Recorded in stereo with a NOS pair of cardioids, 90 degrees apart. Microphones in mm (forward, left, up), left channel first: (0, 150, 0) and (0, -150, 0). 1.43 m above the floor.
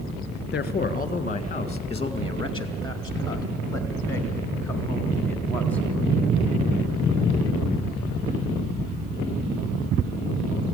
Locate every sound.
0.5 s a man speaking: 35° left, 1.4 m; by 5.8 s 5° left, 4 m